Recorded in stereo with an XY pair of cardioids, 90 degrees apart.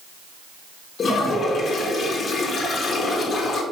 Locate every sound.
1.0 s a toilet flushing: 55° left, 1.9 m